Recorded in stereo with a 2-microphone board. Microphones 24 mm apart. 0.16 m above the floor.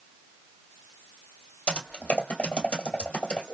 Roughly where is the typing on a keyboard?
Left.